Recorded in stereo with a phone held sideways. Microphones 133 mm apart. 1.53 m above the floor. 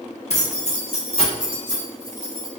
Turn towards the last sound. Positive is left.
turn(degrees=30)  # may be behind; listen again after turning